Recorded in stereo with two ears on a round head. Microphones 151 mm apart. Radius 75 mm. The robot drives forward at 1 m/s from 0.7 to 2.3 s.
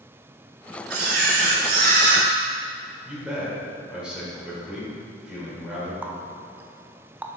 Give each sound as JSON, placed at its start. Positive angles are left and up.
{"t": 0.9, "sound": "a camera shutter", "side_deg": -65, "distance_m": 1.4}
{"t": 3.0, "sound": "a man speaking", "side_deg": -5, "distance_m": 2.5}
{"t": 6.0, "sound": "a running tap", "side_deg": -10, "distance_m": 0.5}